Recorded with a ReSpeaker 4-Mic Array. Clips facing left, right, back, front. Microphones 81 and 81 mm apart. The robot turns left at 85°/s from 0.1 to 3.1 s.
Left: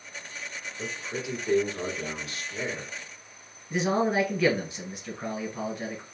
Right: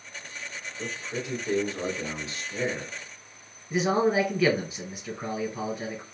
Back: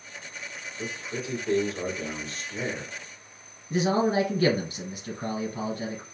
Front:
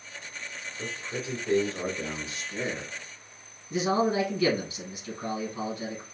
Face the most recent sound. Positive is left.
turn(degrees=-175)